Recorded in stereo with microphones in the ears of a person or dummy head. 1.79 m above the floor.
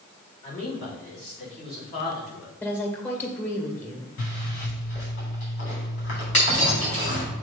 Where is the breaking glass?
35° left (ahead or behind), 3.5 m.